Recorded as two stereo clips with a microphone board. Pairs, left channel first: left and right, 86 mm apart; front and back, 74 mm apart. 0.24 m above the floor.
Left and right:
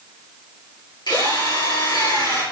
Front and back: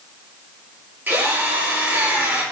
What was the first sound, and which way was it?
A drill, 115° left.